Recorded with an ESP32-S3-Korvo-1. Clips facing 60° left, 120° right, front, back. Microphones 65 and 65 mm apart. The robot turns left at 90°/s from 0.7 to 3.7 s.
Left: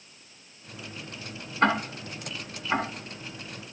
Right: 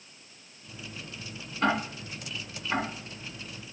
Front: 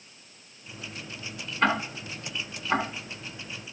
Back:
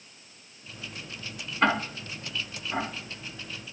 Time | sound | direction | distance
1.6 | ticking | 100° left | 2.0 m